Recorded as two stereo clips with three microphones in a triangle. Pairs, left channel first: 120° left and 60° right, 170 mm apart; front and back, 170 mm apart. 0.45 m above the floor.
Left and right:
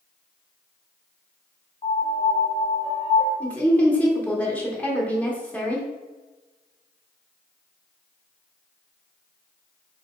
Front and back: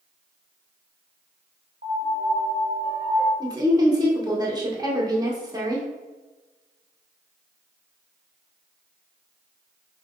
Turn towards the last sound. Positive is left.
turn(degrees=-175)